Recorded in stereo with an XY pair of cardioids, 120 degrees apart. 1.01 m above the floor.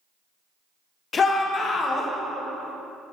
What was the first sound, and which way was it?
A shout, 35° left.